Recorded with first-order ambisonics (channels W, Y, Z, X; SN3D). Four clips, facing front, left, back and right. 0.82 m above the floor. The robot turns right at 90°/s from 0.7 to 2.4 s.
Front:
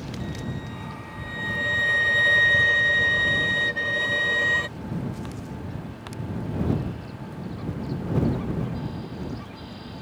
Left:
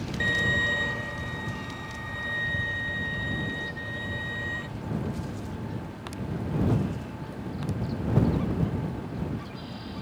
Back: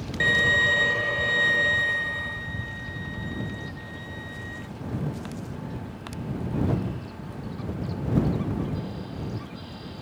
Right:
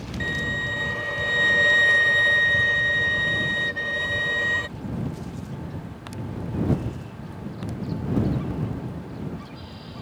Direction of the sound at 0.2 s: 175° left.